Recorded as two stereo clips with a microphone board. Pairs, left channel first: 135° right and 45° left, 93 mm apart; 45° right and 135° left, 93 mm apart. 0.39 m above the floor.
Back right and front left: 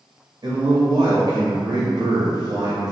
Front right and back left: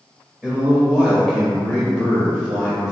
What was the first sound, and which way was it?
A man speaking, 60° left.